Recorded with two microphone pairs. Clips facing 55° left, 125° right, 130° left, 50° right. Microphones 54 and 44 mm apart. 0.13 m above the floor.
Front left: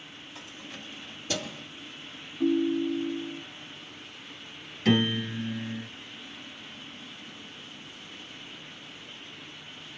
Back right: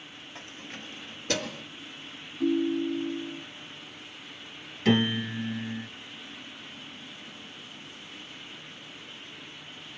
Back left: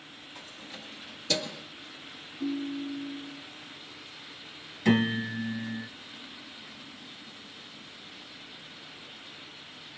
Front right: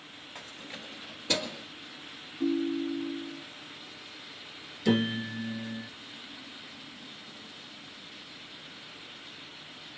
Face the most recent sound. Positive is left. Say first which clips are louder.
# even, back left 2 dB
turn(degrees=155)